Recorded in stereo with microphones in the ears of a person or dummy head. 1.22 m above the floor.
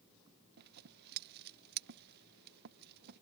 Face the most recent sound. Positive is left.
turn(degrees=-60)  # may be behind; listen again after turning